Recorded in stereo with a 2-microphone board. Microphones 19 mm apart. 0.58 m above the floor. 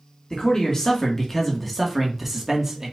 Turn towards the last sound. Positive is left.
turn(degrees=-30)  # may be behind; listen again after turning